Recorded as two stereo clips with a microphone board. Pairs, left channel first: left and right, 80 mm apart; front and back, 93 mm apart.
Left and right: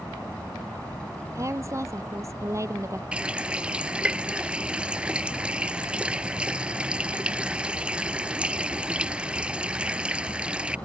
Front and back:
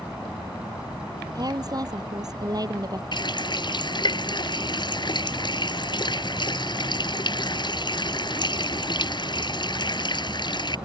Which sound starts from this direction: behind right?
A woman speaking, at 1.4 s.